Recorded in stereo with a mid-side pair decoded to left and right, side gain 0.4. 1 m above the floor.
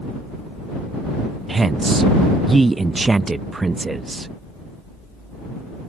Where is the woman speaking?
25° right.